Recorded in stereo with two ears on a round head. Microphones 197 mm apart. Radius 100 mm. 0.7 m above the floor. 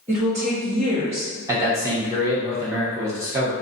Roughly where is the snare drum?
I don't hear a snare drum.